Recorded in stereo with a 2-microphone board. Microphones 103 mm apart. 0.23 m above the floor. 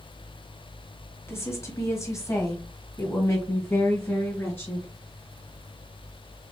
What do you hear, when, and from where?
1.3 s a woman speaking: 25° left (ahead or behind), 1.5 m